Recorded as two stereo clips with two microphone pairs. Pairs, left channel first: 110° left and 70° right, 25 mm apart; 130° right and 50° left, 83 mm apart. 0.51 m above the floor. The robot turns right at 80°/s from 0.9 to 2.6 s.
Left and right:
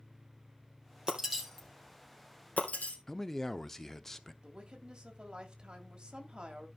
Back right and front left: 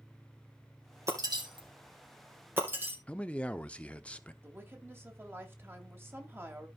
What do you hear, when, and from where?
1.1 s breaking glass: 5° right, 3 m; by 3.0 s 115° left, 3 m
3.1 s a man speaking: 175° left, 0.8 m
4.4 s a woman speaking: 15° right, 2 m